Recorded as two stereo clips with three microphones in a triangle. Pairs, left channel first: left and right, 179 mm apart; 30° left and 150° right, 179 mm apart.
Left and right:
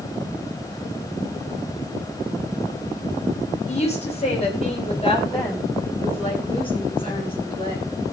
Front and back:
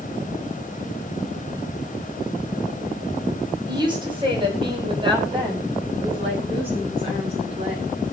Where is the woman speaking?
145° left, 5 m; by 7.9 s 155° left, 8.5 m.